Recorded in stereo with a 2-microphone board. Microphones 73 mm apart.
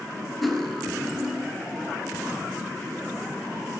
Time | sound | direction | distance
0.4 | cutlery clinking | centre (ahead or behind) | 1.5 m